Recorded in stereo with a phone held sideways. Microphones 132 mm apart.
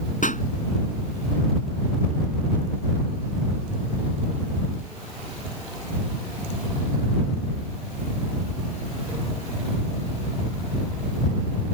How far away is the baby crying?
No baby crying in this recording.